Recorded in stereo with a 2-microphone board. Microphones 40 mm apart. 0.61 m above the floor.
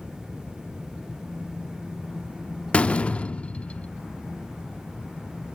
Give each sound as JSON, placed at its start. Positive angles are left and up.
{"t": 2.7, "sound": "a door slam", "side_deg": 30, "distance_m": 0.6}